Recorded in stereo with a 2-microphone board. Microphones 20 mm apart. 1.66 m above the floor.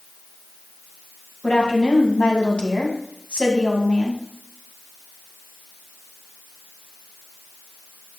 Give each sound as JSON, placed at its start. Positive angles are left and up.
{"t": 1.4, "sound": "a woman speaking", "side_deg": 65, "distance_m": 2.0}